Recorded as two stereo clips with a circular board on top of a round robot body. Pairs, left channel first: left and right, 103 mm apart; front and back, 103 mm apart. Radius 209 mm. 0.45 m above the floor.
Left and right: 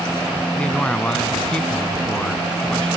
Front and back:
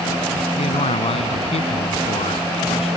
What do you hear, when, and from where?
0.6 s a man speaking: 10° left